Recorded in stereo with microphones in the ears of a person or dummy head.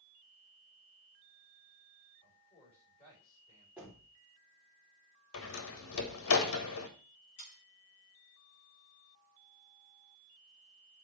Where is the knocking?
10° right (ahead or behind), 3 m.